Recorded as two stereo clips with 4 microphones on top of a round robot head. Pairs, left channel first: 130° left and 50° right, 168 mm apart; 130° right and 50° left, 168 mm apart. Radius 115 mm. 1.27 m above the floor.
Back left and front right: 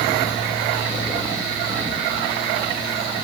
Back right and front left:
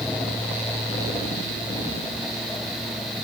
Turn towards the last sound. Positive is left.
No sound to turn to.